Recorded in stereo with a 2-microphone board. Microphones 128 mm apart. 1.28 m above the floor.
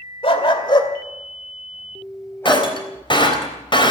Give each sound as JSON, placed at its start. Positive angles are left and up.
{"t": 0.2, "sound": "a dog barking", "side_deg": 45, "distance_m": 2.0}
{"t": 2.5, "sound": "breaking glass", "side_deg": 40, "distance_m": 3.5}